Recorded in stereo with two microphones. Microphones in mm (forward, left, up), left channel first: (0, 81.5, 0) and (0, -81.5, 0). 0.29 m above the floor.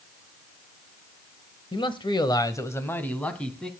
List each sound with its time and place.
1.7 s a man speaking: 30° left (ahead or behind), 1.4 m; by 3.7 s 5° left (ahead or behind), 3 m